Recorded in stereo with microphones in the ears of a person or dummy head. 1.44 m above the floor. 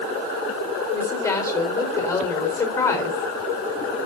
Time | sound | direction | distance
0.9 | a woman speaking | 15° left (ahead or behind) | 4.5 m